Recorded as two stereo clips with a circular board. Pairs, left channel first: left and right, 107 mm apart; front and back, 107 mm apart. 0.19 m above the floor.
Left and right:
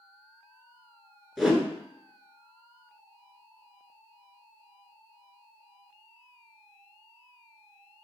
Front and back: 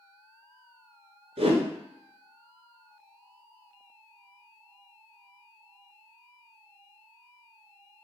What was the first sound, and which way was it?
A whoosh, straight behind.